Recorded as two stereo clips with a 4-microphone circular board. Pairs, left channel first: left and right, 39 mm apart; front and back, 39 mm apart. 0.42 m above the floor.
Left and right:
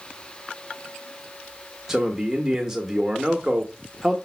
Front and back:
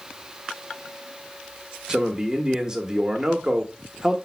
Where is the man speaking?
150° right, 1.1 m.